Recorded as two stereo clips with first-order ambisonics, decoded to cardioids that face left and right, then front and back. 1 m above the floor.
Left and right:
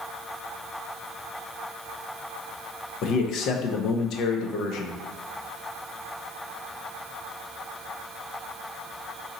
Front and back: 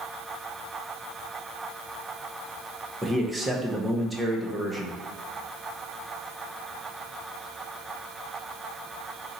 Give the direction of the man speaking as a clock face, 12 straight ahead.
8 o'clock.